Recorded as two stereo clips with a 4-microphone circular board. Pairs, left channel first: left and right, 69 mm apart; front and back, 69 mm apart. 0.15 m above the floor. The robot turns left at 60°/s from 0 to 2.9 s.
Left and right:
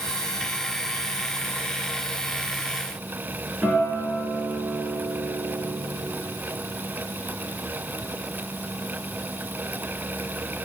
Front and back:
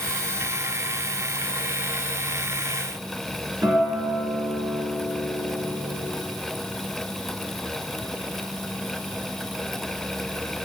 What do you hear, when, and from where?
3.6 s a guitar: 175° right, 2.5 m